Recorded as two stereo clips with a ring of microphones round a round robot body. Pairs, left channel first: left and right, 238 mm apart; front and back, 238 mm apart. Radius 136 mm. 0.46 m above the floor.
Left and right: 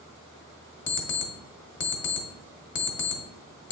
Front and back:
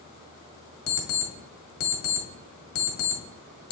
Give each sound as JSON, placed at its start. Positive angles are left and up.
{"t": 0.9, "sound": "an alarm clock", "azimuth_deg": 50, "distance_m": 1.4}